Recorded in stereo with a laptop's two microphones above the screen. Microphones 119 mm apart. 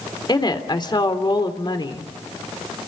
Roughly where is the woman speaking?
Left.